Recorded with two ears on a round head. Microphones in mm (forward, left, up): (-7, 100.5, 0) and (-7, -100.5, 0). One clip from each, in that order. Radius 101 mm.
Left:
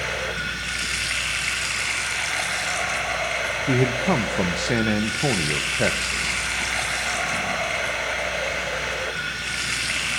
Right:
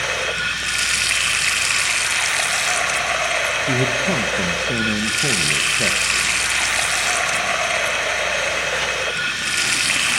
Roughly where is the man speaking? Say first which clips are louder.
Right 3 dB; left.